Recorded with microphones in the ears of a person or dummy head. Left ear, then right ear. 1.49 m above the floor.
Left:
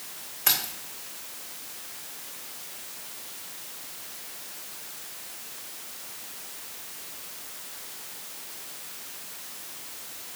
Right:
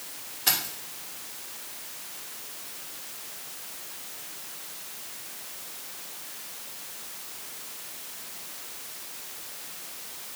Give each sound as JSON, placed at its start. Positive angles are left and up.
{"t": 0.5, "sound": "keys jangling", "side_deg": 30, "distance_m": 2.0}